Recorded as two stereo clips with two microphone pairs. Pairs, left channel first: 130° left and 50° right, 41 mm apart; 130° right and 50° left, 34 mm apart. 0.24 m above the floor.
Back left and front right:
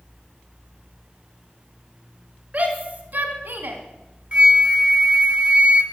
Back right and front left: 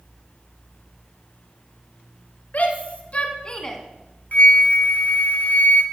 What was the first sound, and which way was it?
A shout, 100° right.